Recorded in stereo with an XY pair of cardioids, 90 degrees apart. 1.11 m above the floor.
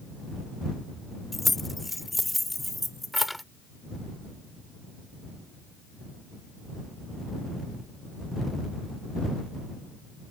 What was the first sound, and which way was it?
Keys jangling, 25° left.